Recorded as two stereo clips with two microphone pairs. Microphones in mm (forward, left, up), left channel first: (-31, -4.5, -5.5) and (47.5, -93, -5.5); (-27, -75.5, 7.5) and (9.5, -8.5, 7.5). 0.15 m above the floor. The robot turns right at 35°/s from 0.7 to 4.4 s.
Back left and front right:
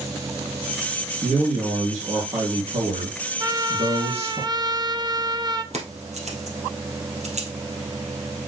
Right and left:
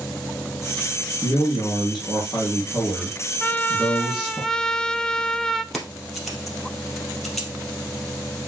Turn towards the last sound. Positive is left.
turn(degrees=-30)